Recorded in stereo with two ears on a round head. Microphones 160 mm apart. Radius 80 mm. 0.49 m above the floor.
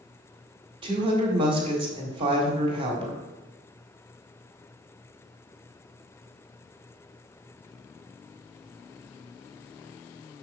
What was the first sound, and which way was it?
A woman speaking, 30° right (ahead or behind).